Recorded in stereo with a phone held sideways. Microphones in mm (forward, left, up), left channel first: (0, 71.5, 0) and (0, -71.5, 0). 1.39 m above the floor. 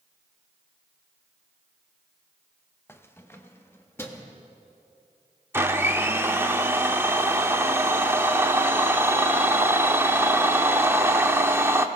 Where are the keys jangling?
15° left (ahead or behind), 0.9 m.